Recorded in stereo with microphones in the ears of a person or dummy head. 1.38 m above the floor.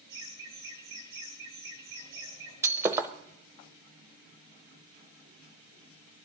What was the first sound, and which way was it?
Laughter, 25° right (ahead or behind).